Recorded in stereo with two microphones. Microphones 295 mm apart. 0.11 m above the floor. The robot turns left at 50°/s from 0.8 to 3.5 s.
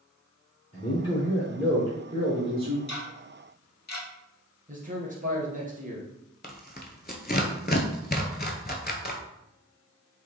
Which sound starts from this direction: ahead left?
A man speaking, at 0.7 s.